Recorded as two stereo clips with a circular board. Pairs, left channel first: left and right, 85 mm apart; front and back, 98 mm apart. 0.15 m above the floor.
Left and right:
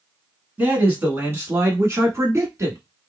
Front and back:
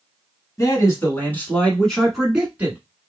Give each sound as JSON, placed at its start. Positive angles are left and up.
{"t": 0.6, "sound": "a man speaking", "azimuth_deg": -30, "distance_m": 1.5}